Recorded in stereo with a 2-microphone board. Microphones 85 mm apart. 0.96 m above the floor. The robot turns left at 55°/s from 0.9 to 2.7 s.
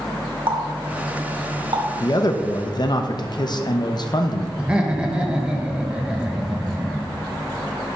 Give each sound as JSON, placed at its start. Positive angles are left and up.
{"t": 0.5, "sound": "a running tap", "side_deg": -75, "distance_m": 1.7}
{"t": 2.0, "sound": "a man speaking", "azimuth_deg": 120, "distance_m": 0.7}
{"t": 4.6, "sound": "laughter", "side_deg": -10, "distance_m": 1.1}